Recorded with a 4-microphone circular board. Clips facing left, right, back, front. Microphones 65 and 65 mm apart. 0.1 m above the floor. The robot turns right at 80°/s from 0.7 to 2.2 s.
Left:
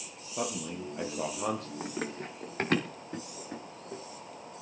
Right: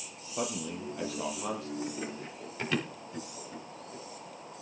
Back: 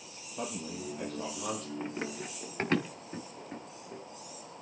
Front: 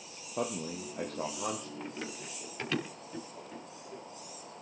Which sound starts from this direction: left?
Running footsteps, at 1.8 s.